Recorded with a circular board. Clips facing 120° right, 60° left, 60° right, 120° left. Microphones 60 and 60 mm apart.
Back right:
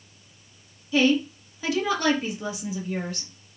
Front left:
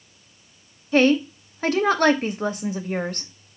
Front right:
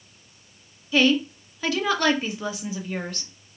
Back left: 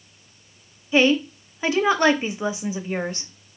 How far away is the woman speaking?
About 0.7 m.